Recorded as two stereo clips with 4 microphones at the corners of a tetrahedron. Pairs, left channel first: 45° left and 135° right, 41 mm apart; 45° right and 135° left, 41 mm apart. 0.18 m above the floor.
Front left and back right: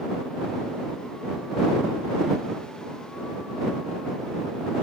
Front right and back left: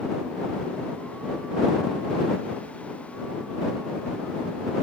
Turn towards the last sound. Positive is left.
No sound to turn to.